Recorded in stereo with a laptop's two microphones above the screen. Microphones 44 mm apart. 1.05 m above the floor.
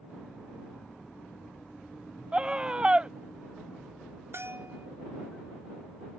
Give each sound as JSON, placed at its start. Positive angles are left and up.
{"t": 2.3, "sound": "a scream", "side_deg": -25}
{"t": 4.3, "sound": "a bell", "side_deg": -60}